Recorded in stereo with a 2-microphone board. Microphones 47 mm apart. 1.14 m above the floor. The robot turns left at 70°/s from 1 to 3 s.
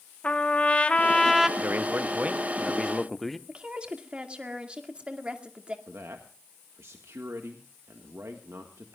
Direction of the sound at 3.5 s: 25° right (ahead or behind).